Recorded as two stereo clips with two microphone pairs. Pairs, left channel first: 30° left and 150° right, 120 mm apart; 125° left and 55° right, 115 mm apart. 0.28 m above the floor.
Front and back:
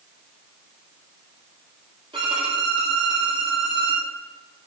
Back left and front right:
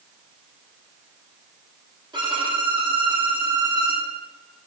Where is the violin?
105° right, 3 m.